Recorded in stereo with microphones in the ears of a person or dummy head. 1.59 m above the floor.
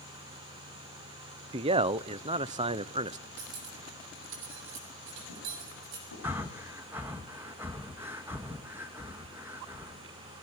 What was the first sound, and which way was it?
A man speaking, 25° right (ahead or behind).